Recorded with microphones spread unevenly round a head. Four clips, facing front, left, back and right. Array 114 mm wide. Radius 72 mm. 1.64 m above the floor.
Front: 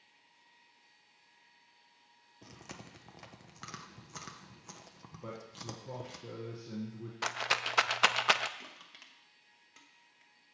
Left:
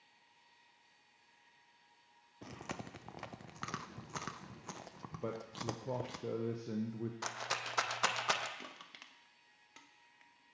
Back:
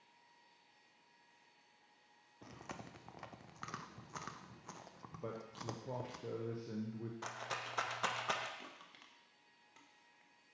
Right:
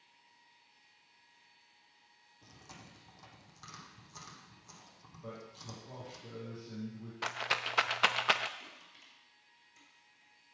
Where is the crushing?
60° left, 1.0 m.